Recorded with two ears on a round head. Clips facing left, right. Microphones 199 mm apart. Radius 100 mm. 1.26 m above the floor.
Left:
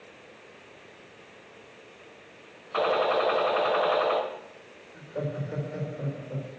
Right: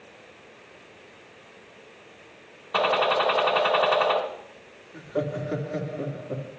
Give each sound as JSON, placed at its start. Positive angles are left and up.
{"t": 2.7, "sound": "a gunshot", "side_deg": -70, "distance_m": 3.0}
{"t": 4.9, "sound": "laughter", "side_deg": -80, "distance_m": 2.5}